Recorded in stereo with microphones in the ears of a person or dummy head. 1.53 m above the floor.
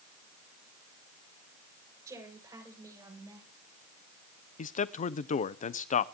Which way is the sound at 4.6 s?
35° left (ahead or behind).